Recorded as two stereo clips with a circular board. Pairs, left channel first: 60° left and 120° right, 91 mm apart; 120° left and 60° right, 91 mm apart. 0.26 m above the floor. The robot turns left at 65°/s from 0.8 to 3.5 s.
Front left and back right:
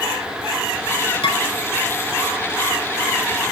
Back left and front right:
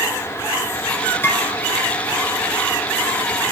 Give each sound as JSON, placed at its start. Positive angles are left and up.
{"t": 1.2, "sound": "dishes clattering", "azimuth_deg": 60, "distance_m": 3.0}